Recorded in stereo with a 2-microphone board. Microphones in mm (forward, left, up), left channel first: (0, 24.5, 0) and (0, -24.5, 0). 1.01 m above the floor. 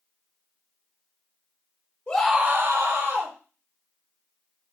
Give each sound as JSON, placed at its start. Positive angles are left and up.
{"t": 2.1, "sound": "a scream", "side_deg": 30, "distance_m": 0.6}